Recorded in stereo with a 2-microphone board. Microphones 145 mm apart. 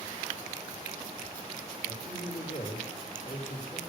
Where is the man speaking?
70° left (ahead or behind), 3.5 m.